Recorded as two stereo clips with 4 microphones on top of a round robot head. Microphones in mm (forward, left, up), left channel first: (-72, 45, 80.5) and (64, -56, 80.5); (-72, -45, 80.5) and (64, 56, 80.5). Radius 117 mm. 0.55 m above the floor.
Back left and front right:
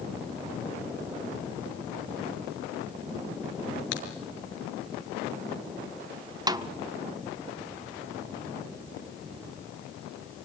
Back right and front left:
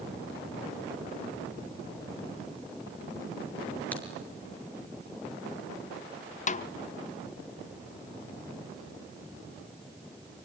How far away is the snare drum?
About 1.0 m.